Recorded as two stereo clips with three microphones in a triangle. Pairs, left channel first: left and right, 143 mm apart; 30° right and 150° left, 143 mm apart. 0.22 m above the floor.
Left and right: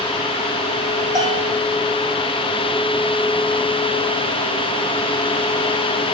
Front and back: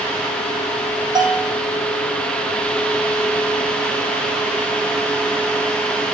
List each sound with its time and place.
1.1 s a bell: 150° right, 4 m